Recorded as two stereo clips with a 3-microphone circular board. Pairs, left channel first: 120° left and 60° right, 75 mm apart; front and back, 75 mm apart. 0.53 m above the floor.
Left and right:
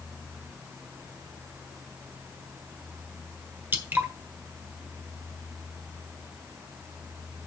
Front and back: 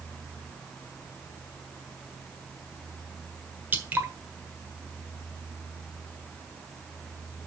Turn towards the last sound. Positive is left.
turn(degrees=-120)